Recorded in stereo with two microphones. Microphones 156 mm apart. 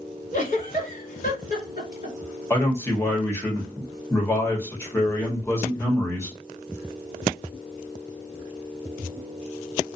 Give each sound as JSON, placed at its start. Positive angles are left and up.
{"t": 0.3, "sound": "a giggle", "side_deg": 50, "distance_m": 1.4}
{"t": 2.5, "sound": "a man speaking", "side_deg": 15, "distance_m": 1.2}